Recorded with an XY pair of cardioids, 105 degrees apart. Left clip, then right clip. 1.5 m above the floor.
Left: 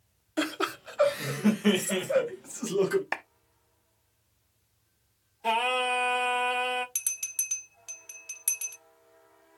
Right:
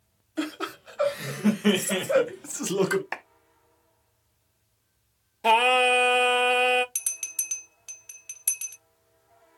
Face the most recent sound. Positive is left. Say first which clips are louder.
# right 1 dB
turn(degrees=-15)